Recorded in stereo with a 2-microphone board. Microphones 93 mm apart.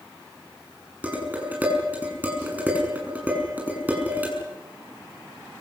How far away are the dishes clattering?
About 6.5 m.